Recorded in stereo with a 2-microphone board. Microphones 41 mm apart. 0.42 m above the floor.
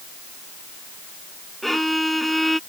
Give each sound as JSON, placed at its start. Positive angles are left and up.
{"t": 1.6, "sound": "a violin", "side_deg": 0}